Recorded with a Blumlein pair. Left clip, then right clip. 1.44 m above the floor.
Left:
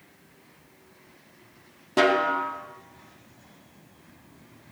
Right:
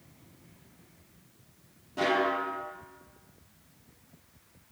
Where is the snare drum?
55° left, 2 m.